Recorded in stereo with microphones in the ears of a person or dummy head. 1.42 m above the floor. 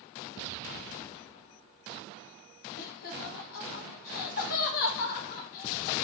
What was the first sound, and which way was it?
Laughter, 50° left (ahead or behind).